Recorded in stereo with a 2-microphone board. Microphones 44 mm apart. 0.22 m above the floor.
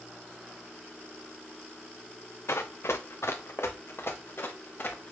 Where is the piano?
I don't hear a piano.